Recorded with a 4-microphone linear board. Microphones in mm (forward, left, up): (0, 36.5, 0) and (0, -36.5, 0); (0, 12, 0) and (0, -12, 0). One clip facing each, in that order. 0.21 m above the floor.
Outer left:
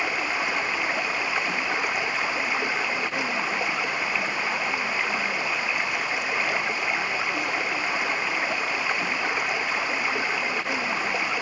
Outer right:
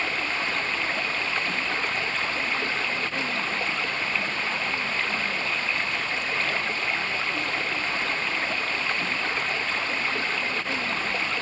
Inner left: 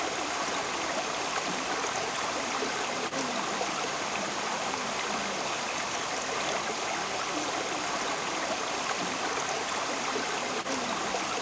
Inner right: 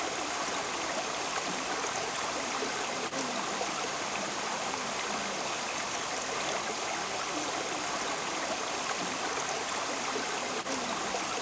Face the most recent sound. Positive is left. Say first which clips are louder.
# outer left 2 dB, inner left 2 dB
turn(degrees=10)  # may be behind; listen again after turning